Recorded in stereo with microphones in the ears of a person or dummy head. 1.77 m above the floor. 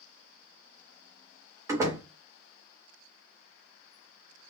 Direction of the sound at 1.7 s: 15° right (ahead or behind).